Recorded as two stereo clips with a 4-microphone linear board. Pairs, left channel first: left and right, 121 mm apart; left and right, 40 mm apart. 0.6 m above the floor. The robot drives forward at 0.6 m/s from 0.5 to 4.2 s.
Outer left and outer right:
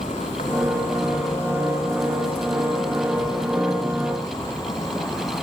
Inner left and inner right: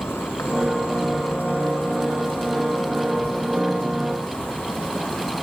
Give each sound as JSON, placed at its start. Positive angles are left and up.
{"t": 0.0, "sound": "an insect", "side_deg": 75, "distance_m": 1.5}